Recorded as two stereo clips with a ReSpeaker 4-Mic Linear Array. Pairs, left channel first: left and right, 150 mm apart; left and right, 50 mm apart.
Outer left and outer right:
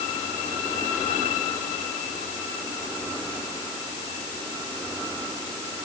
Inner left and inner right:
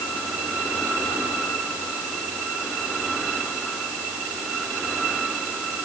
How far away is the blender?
I don't hear a blender.